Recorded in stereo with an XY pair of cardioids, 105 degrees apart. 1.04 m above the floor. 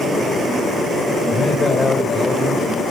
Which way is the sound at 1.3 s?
30° left.